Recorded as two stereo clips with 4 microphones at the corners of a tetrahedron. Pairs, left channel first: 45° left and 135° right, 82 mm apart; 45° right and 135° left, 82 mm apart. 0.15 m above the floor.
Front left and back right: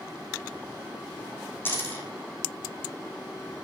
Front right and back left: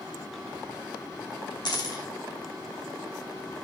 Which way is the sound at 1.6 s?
20° right.